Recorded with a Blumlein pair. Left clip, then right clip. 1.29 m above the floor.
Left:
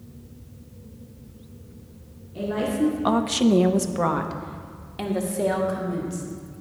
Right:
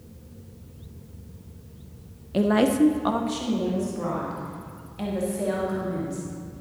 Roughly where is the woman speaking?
Ahead right.